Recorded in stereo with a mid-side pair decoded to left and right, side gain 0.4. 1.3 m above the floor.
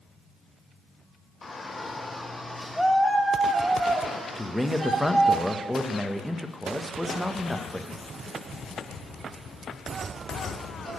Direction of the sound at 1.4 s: 40° left.